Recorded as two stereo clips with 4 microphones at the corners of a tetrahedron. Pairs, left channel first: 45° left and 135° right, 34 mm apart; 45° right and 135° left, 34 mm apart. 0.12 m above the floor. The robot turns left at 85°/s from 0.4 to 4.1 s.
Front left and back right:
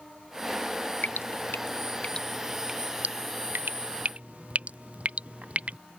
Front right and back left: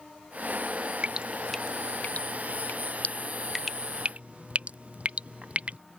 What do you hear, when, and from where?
1.0 s dripping: 80° left; by 5.8 s straight behind